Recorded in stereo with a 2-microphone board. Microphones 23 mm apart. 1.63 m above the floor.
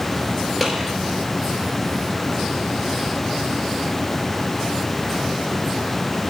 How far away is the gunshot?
About 4.5 m.